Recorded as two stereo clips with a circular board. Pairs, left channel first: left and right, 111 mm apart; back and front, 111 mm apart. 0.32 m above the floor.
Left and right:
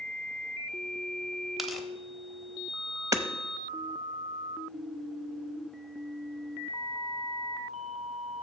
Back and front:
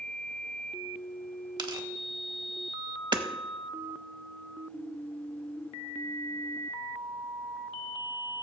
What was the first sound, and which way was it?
Tearing paper, straight ahead.